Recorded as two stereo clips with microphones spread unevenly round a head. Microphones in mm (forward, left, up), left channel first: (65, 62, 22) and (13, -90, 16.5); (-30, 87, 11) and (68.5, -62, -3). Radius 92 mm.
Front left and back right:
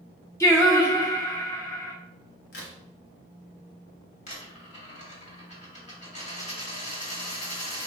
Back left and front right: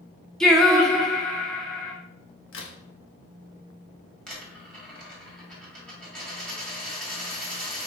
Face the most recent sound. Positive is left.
turn(degrees=40)